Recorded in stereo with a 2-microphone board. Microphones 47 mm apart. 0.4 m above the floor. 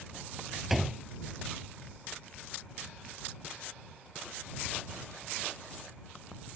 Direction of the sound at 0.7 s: 5° right (ahead or behind).